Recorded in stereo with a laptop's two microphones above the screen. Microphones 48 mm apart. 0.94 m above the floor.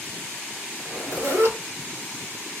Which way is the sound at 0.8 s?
80° right.